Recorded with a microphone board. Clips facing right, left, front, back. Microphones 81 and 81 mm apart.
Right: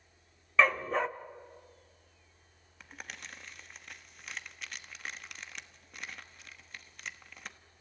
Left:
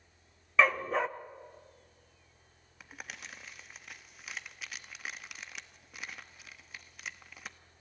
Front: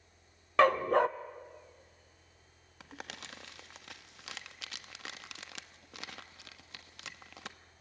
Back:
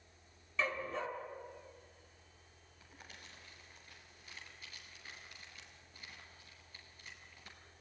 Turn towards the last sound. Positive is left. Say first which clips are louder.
# even, front 10 dB
turn(degrees=5)